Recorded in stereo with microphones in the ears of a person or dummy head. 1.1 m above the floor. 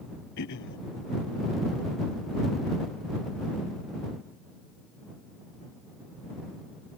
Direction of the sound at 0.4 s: 65° left (ahead or behind).